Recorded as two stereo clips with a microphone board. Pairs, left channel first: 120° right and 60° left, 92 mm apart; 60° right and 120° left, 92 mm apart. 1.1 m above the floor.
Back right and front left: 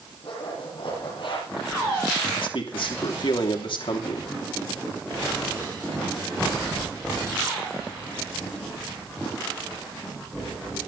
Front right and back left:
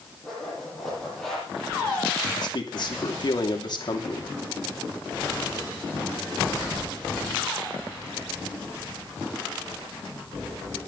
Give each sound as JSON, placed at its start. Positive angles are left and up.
{"t": 0.2, "sound": "a zipper", "azimuth_deg": -145, "distance_m": 9.5}
{"t": 2.4, "sound": "a man speaking", "azimuth_deg": -95, "distance_m": 2.5}